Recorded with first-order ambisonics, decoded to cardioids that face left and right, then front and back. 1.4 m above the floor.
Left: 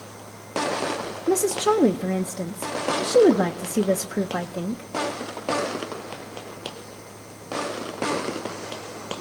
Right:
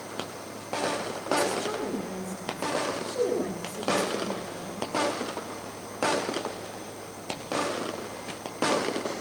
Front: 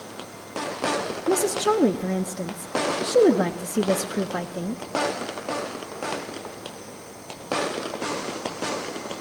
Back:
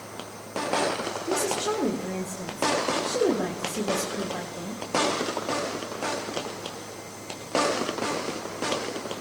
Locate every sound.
1.3 s a woman speaking: 60° left, 0.8 m